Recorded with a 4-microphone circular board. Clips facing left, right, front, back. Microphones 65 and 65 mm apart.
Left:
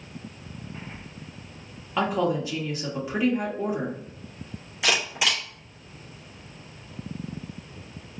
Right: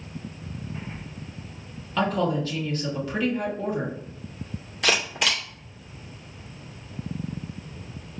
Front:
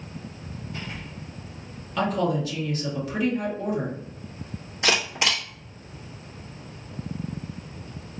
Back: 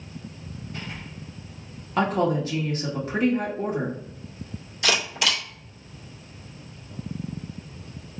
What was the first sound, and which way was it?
A woman speaking, 155° left.